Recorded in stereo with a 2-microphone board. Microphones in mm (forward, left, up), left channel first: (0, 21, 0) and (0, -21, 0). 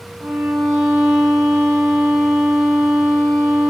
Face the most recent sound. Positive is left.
turn(degrees=20)  # may be behind; listen again after turning